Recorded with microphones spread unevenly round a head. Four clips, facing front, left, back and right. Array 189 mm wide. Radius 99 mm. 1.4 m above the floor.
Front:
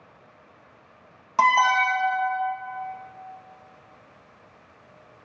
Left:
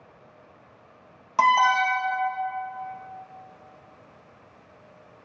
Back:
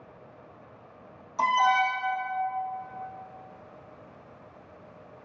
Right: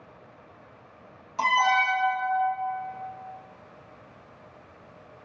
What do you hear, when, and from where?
1.4 s an alarm: 30° left, 2.0 m